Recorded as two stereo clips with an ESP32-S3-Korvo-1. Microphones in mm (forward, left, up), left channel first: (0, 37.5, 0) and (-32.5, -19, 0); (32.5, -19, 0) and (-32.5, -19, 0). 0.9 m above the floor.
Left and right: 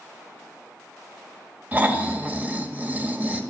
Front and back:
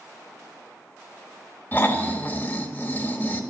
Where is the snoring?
55° right, 1.6 m.